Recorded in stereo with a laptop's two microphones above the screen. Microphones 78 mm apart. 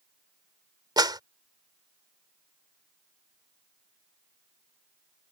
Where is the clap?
65° right (ahead or behind).